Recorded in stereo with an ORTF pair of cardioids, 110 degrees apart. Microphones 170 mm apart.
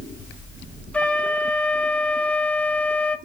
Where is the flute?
5° left, 0.8 m.